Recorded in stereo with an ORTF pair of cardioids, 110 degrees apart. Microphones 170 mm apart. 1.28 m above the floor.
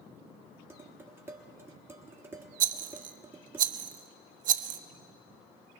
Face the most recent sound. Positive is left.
turn(degrees=-50)